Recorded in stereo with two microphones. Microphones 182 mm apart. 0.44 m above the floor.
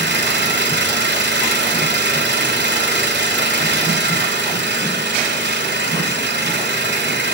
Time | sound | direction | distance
0.0 | an engine running | 75° right (ahead or behind) | 1.1 m